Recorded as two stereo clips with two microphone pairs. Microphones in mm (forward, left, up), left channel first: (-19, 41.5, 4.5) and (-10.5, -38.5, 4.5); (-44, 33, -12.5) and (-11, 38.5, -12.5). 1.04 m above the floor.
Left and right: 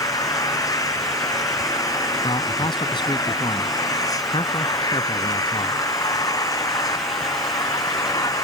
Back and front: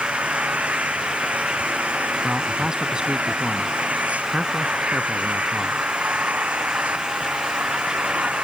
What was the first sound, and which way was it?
An engine running, 50° left.